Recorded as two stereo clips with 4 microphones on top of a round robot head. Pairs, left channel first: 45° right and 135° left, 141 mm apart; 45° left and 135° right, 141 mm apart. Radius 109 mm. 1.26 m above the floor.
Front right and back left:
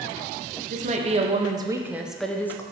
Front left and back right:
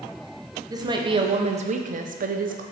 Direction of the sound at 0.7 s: 165° left.